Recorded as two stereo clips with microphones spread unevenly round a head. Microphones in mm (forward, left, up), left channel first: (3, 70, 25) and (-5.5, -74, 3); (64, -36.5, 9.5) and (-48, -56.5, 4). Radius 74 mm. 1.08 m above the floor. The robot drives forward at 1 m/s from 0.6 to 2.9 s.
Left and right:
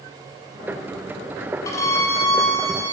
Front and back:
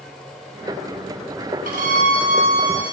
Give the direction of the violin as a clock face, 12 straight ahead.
7 o'clock.